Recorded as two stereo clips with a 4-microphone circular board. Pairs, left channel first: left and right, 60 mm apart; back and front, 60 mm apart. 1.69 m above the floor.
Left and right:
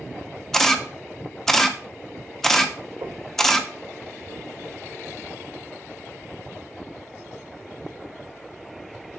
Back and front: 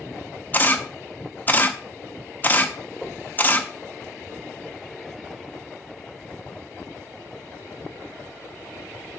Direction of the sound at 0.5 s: 165° left.